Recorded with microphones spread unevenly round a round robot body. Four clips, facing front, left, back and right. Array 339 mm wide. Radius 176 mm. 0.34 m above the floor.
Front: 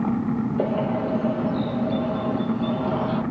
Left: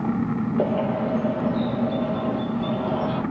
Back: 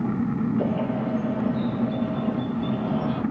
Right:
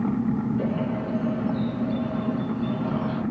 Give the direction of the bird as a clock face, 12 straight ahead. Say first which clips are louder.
Left 4 dB, front 2 dB; 11 o'clock.